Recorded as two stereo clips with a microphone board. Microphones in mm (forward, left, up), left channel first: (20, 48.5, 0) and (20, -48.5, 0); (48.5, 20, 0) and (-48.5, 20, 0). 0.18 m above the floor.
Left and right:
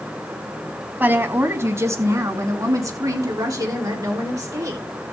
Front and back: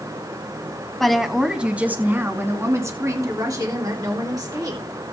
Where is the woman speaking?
80° right, 1.5 m; by 4.8 s 140° right, 3.5 m.